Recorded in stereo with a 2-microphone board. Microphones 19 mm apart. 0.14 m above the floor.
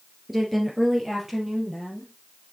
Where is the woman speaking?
15° right (ahead or behind), 2 m; by 2.1 s 25° right (ahead or behind), 4 m.